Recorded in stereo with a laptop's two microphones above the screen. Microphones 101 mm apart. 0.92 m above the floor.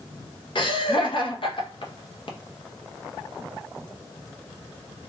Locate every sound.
0.6 s laughter: 55° left (ahead or behind), 1.0 m